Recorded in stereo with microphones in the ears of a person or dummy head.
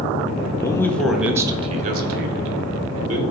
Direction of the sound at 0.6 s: 15° left (ahead or behind).